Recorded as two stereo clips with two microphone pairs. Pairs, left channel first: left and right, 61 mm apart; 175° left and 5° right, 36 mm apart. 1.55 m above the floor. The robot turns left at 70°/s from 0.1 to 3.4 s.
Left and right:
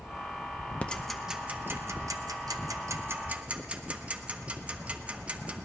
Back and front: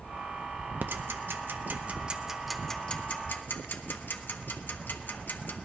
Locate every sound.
0.8 s ticking: 20° left, 0.6 m; by 5.7 s 160° right, 0.6 m